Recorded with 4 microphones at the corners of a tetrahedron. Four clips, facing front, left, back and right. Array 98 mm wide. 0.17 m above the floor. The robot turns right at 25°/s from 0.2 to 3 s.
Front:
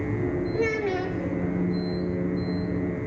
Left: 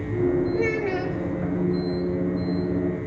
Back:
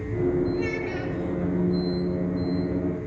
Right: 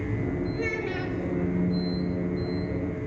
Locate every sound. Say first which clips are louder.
0.5 s a child speaking: left 6 dB, front 2 dB; 45° left, 3 m; by 1.2 s 60° left, 3 m